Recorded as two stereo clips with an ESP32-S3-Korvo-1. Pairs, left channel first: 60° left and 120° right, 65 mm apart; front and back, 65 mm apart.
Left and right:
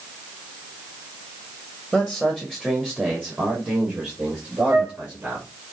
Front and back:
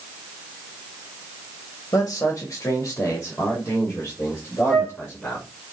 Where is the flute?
65° right, 5.5 m.